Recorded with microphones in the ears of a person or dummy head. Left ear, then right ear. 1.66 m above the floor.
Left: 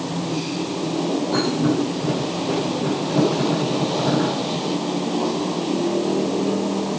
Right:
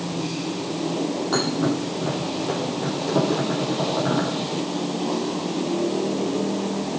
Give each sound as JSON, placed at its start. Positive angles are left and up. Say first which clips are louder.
{"t": 1.3, "sound": "a thud", "louder": "left 1 dB", "side_deg": -50, "distance_m": 6.5}